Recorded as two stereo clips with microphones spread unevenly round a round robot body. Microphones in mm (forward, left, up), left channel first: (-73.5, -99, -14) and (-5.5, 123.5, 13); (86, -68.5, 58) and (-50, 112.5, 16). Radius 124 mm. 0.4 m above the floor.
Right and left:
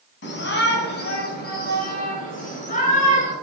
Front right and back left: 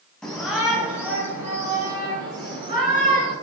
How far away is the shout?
About 3 m.